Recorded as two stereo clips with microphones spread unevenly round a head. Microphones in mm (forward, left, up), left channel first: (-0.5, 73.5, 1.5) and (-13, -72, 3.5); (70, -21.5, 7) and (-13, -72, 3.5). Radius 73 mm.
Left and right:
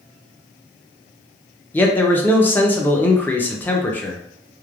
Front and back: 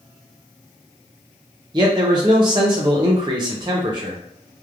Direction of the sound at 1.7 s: 160° left.